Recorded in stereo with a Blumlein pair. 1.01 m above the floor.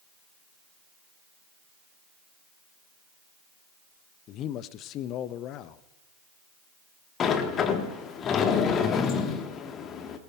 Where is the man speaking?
35° left, 0.6 m.